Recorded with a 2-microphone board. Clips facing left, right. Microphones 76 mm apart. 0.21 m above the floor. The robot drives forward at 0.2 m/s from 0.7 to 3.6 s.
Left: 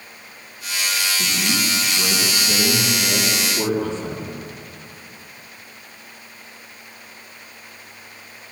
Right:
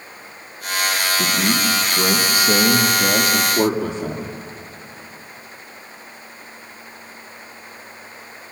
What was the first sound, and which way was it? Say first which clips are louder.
A man speaking: right 5 dB; 45° right (ahead or behind).